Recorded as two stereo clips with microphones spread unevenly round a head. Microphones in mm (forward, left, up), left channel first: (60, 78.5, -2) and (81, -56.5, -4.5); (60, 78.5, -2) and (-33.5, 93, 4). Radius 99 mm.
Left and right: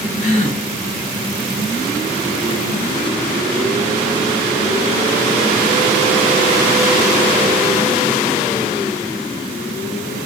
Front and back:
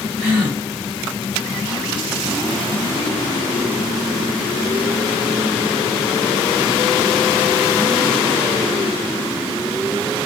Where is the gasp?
100° left, 3 m.